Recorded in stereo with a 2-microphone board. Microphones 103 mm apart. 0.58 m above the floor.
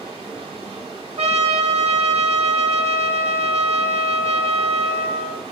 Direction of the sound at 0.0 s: 75° right (ahead or behind).